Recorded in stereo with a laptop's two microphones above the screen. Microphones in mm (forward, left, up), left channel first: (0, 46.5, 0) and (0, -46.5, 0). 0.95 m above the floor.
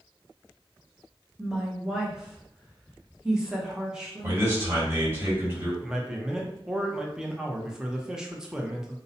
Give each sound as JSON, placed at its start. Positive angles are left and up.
{"t": 1.4, "sound": "a woman speaking", "side_deg": -5, "distance_m": 0.7}
{"t": 4.2, "sound": "a man speaking", "side_deg": -25, "distance_m": 1.6}
{"t": 5.8, "sound": "a man speaking", "side_deg": -5, "distance_m": 0.5}